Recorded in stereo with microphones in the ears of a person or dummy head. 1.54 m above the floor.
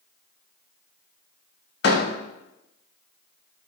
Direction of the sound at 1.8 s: 75° left (ahead or behind).